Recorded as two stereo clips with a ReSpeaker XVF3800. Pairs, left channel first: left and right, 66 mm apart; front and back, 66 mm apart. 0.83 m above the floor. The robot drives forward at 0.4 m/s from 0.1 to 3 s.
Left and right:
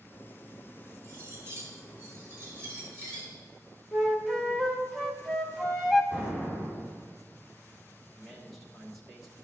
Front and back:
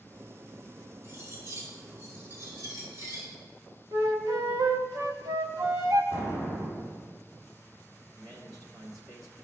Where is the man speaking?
175° left, 1.9 m.